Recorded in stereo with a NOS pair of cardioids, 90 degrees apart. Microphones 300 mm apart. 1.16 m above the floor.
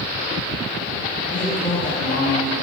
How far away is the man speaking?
About 1.8 m.